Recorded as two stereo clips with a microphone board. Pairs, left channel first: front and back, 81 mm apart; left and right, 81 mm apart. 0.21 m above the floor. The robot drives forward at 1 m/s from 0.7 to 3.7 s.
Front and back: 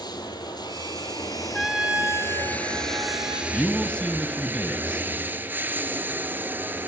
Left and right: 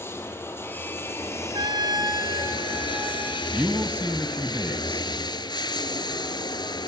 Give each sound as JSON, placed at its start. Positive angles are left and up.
{"t": 0.0, "sound": "running water", "azimuth_deg": 30, "distance_m": 3.0}
{"t": 1.5, "sound": "a trumpet", "azimuth_deg": -90, "distance_m": 1.0}
{"t": 3.5, "sound": "a man speaking", "azimuth_deg": -50, "distance_m": 1.4}